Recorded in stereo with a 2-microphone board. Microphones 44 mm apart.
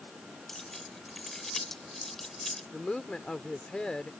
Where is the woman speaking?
15° left (ahead or behind).